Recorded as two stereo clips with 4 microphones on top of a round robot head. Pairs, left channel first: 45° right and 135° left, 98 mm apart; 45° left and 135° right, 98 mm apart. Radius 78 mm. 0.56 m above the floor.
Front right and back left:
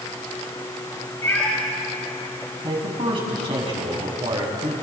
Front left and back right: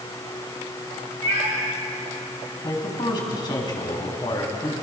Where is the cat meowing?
110° right, 5 m.